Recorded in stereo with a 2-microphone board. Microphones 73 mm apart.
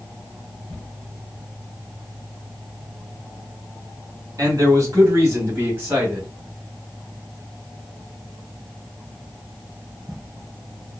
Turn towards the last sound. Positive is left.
turn(degrees=-20)  # may be behind; listen again after turning